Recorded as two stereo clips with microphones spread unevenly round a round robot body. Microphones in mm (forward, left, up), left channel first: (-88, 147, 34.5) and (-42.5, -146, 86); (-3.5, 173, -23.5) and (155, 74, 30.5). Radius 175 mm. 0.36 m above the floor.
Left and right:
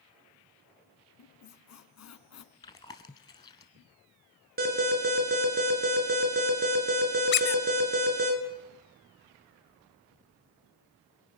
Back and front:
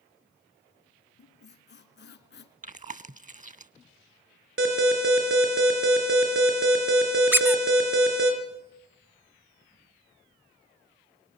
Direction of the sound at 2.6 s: 20° left.